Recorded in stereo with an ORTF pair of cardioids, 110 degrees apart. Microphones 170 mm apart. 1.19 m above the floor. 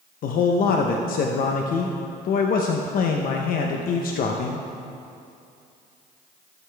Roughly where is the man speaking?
Ahead left.